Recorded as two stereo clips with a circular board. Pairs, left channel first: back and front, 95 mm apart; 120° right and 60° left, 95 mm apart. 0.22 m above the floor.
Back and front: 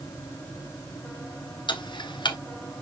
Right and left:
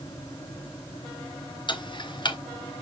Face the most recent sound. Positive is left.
turn(degrees=-150)